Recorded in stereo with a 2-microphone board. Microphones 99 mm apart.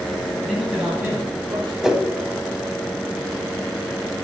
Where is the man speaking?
10° left (ahead or behind), 1.5 m; by 1.7 s 45° right (ahead or behind), 1.9 m.